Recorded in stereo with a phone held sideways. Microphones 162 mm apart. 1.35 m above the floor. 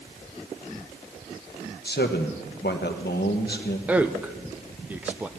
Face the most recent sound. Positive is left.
turn(degrees=-10)  # may be behind; listen again after turning